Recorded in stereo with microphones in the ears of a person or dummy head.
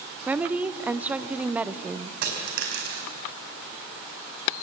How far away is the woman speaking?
About 0.7 m.